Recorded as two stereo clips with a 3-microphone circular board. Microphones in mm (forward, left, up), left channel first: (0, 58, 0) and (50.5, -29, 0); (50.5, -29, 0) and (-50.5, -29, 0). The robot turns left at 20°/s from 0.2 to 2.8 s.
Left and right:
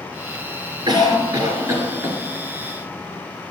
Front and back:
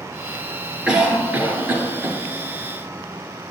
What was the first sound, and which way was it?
A cough, 95° right.